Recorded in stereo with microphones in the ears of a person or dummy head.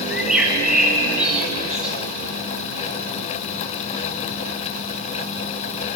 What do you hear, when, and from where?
0.1 s a bird: 5° right (ahead or behind), 6 m